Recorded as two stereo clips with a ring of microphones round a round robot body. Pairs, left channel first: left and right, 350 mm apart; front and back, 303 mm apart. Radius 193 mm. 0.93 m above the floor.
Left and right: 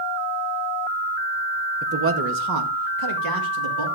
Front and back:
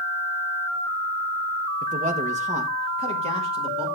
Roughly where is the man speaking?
Behind right.